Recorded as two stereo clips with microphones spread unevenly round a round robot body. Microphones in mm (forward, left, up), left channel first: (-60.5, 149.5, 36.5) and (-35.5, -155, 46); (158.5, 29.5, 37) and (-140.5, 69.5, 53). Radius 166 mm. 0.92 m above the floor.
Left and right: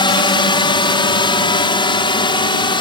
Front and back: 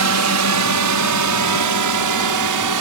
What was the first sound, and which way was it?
A drone, 165° left.